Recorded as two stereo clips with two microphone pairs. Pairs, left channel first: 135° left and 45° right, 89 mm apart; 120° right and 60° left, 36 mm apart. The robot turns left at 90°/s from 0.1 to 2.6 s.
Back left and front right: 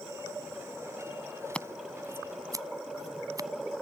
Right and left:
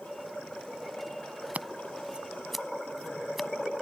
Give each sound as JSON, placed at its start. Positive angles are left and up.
{"t": 1.5, "sound": "scissors", "azimuth_deg": 65}